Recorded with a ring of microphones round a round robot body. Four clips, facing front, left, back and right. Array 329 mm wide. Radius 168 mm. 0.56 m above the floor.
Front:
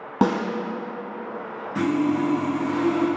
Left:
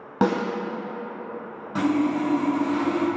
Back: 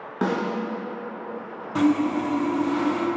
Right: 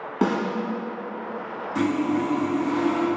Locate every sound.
0.2 s a snare drum: 35° left, 1.2 m
1.8 s sawing: 145° left, 1.0 m